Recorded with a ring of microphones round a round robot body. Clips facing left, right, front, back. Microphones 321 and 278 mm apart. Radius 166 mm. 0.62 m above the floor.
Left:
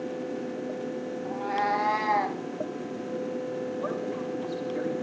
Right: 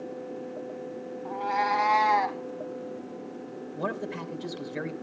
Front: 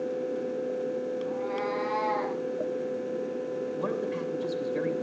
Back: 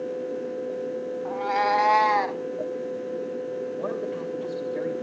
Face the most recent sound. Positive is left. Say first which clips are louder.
# left 3 dB, back 1 dB
turn(degrees=-60)